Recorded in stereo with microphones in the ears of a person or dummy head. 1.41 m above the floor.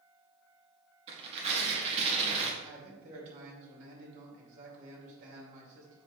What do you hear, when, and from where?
1.1 s tearing paper: 35° right (ahead or behind), 1.7 m
2.6 s a man speaking: 50° right (ahead or behind), 2.5 m